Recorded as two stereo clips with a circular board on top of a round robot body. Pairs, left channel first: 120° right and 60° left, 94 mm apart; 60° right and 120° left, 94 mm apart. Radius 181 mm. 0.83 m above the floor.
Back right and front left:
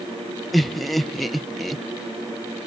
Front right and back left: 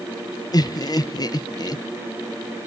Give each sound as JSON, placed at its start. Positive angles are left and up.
{"t": 0.5, "sound": "laughter", "azimuth_deg": -30, "distance_m": 1.0}